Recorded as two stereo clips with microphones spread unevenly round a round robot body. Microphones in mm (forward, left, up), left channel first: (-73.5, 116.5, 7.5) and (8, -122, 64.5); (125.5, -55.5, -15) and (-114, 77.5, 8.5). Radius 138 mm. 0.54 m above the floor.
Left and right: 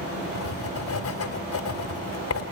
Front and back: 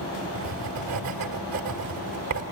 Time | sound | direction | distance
0.3 | writing | 120° left | 1.6 m